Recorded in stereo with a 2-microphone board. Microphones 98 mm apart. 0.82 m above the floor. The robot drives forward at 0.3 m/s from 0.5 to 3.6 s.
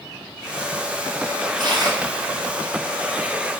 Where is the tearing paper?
50° right (ahead or behind), 2 m; by 3.6 s 40° right (ahead or behind), 2.5 m.